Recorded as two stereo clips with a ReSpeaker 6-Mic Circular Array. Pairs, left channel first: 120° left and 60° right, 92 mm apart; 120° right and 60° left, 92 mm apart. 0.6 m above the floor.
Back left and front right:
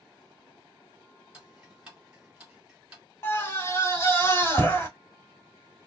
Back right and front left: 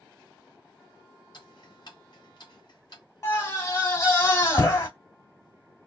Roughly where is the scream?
Behind.